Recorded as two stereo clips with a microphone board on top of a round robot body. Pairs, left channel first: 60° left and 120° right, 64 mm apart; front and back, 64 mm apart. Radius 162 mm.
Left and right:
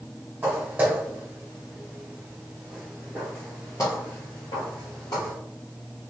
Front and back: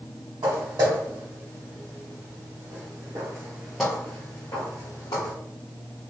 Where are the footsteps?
175° left, 2 m; by 5.3 s 30° left, 1.3 m.